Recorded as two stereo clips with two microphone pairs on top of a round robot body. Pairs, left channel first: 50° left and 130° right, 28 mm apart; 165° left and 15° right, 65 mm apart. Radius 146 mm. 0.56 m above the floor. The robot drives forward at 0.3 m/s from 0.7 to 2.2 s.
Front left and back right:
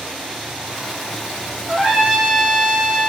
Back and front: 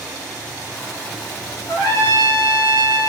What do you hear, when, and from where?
1.7 s a trumpet: 160° left, 1.4 m